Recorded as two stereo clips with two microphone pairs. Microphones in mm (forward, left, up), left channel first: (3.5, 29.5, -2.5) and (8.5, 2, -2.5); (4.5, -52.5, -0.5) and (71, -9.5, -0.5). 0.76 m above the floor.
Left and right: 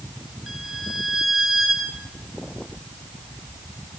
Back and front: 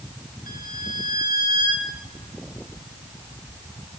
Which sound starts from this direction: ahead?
A violin, at 0.5 s.